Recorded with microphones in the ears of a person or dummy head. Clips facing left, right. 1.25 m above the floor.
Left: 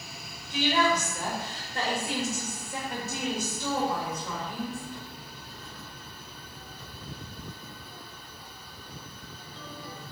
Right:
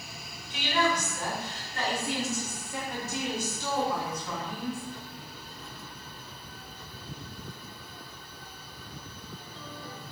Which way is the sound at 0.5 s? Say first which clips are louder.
Left 3 dB; 35° left (ahead or behind).